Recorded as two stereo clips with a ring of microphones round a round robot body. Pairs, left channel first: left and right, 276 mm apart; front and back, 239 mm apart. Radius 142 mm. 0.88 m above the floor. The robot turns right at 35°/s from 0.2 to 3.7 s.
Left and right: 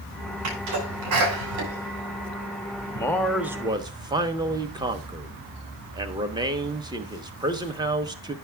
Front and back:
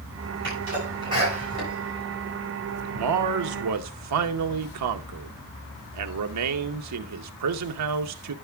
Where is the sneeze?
130° right, 7.5 m; by 3.0 s 40° right, 7.5 m.